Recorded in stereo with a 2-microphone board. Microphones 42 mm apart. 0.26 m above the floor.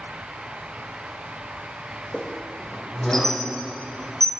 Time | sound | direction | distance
2.1 | a squeak | 5° left (ahead or behind) | 1.4 m